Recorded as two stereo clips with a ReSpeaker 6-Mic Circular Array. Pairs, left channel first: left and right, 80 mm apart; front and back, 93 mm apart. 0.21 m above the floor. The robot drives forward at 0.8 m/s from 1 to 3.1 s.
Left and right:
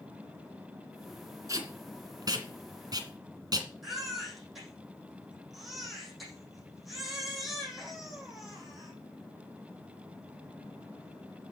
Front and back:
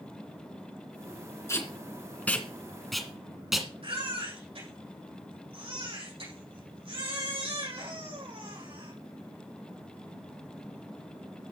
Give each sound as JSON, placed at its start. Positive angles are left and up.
{"t": 1.5, "sound": "tape being pulled", "azimuth_deg": -55, "distance_m": 2.5}
{"t": 3.8, "sound": "a baby crying", "azimuth_deg": 180, "distance_m": 6.0}